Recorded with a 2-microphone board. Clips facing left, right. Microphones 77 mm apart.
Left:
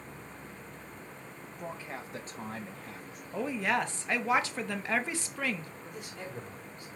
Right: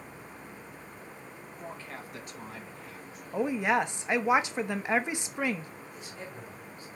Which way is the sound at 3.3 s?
15° right (ahead or behind).